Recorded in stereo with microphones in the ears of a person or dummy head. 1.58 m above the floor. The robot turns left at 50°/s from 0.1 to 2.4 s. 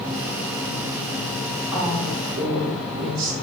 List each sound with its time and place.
1.7 s a woman speaking: 10° right, 1.5 m; by 3.3 s 45° right, 1.5 m